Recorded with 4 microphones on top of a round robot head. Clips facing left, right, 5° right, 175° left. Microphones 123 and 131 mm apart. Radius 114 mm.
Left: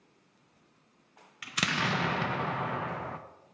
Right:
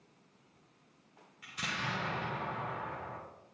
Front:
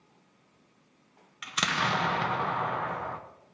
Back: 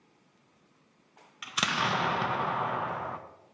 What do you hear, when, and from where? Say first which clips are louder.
1.4 s an explosion: left 8 dB, front 1 dB; 90° left, 0.6 m